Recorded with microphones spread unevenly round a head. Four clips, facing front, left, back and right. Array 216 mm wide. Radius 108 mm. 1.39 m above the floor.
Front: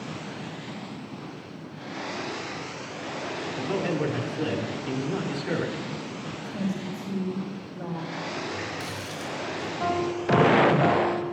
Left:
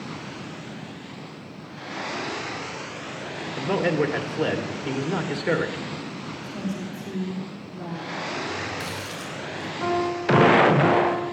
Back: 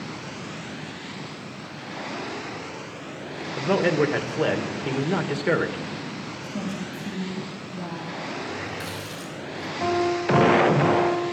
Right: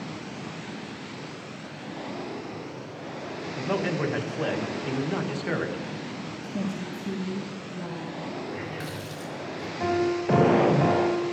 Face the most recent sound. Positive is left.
turn(degrees=-135)